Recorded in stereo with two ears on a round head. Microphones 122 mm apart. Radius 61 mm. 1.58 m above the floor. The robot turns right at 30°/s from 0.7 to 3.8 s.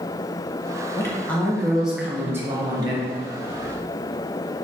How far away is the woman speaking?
About 0.9 m.